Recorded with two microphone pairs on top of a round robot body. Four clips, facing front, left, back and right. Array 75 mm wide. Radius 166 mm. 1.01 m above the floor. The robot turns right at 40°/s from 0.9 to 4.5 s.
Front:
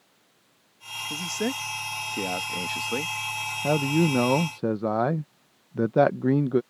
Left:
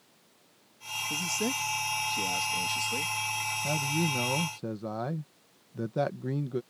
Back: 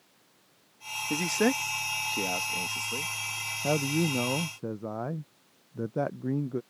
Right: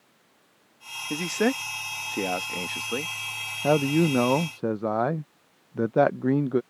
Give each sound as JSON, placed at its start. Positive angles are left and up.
{"t": 1.1, "sound": "a man speaking", "azimuth_deg": -125}
{"t": 3.6, "sound": "a man speaking", "azimuth_deg": -80}